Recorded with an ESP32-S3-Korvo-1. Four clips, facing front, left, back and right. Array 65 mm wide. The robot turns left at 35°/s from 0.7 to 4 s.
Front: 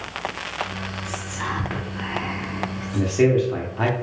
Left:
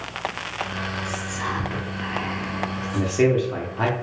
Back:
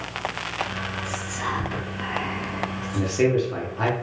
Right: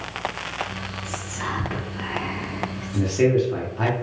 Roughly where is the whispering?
Ahead.